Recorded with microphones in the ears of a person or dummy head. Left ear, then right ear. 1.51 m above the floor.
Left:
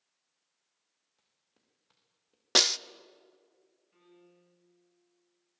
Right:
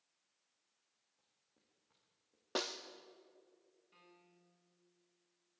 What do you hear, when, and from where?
1.2 s footsteps: 65° left (ahead or behind), 6 m
2.5 s a snare drum: 60° left (ahead or behind), 0.7 m
3.9 s a piano: 50° right (ahead or behind), 9 m